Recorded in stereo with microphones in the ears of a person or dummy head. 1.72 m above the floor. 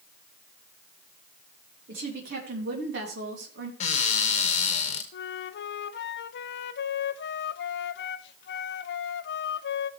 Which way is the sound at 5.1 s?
65° left (ahead or behind).